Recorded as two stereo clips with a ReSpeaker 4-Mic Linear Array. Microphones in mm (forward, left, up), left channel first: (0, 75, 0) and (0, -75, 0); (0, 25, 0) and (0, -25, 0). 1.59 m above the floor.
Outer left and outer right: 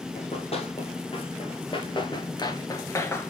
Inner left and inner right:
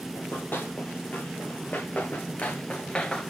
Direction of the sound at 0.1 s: 45° left (ahead or behind).